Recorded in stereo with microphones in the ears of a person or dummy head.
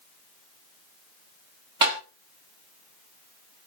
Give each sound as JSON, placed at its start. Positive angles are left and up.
{"t": 1.8, "sound": "tapping", "side_deg": -20, "distance_m": 0.8}